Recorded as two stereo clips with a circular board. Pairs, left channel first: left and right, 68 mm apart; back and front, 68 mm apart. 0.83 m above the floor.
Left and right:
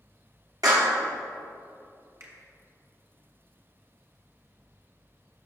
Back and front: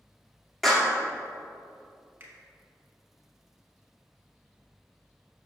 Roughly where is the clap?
Right.